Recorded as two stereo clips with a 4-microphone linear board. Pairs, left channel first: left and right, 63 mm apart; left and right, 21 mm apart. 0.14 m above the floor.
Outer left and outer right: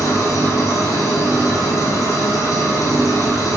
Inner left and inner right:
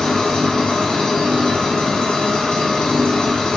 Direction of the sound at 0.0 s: 60° left (ahead or behind).